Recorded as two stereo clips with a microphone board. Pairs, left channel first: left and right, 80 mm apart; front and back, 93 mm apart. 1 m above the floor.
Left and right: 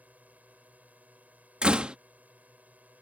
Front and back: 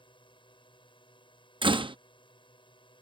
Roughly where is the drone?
Ahead.